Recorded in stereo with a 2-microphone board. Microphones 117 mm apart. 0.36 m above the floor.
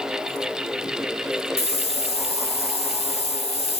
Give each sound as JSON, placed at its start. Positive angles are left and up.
{"t": 1.6, "sound": "a hiss", "side_deg": 55, "distance_m": 0.7}